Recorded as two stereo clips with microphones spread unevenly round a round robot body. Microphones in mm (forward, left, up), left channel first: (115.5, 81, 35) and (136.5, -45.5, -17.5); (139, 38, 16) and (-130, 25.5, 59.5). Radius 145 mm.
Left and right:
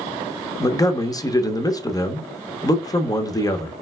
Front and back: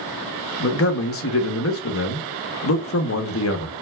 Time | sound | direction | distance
0.6 | a man speaking | 25° left | 0.9 m